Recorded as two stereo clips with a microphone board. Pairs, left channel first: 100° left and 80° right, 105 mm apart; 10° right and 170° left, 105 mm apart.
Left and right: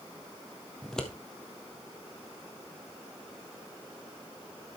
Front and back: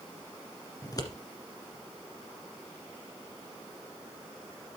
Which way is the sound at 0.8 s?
20° left.